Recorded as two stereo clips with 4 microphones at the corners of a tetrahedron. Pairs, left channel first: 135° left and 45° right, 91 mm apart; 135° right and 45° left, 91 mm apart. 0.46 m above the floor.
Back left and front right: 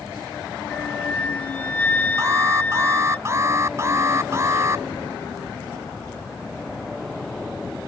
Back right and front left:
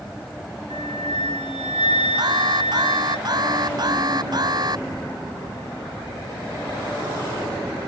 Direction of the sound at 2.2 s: 10° left.